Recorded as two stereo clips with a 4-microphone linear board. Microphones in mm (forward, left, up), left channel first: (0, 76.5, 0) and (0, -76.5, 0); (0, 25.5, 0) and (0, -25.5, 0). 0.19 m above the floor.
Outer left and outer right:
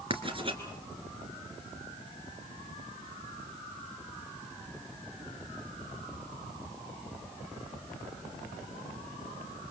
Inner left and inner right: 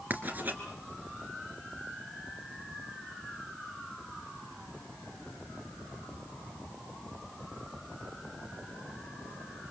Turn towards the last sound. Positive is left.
turn(degrees=-35)  # may be behind; listen again after turning